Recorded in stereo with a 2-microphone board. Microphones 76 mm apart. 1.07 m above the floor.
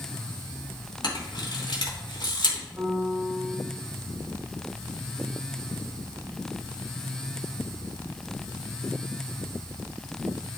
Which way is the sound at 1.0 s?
75° left (ahead or behind).